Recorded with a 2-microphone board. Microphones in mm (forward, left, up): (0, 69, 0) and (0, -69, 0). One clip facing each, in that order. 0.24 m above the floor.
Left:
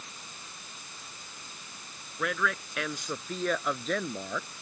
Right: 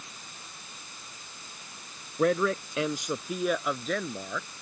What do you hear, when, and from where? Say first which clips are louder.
2.2 s a man speaking: right 7 dB; 40° right (ahead or behind); by 4.5 s 10° left (ahead or behind)